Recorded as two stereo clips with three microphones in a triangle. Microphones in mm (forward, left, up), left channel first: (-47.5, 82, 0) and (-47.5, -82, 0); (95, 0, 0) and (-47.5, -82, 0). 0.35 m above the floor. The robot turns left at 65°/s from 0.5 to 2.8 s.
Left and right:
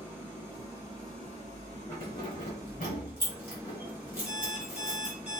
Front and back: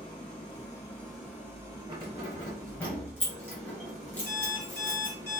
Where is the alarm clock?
40° left, 1.0 m.